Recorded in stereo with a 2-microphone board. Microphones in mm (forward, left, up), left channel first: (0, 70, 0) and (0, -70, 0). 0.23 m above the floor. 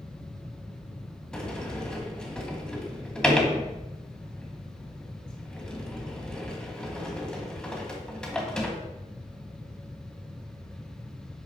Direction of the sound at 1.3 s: 5° left (ahead or behind).